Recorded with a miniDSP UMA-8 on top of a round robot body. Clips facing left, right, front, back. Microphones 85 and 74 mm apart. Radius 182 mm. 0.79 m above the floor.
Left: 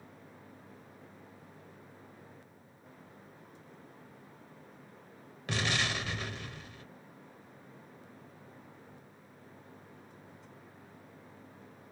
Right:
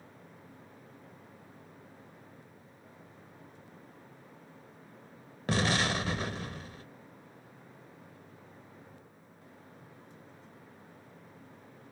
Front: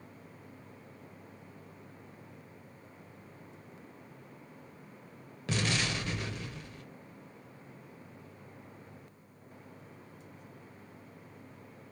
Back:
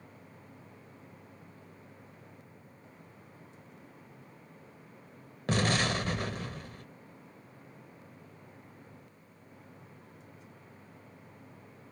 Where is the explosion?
140° right, 1.5 m.